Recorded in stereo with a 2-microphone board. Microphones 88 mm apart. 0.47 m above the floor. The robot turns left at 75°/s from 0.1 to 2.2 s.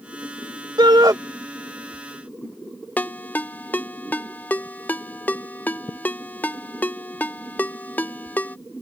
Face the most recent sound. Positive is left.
turn(degrees=20)  # may be behind; listen again after turning